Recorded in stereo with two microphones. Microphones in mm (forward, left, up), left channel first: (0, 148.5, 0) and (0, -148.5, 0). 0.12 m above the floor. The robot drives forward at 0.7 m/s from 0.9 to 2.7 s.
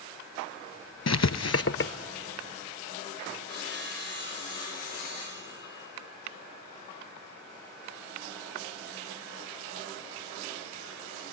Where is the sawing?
35° right (ahead or behind), 8 m.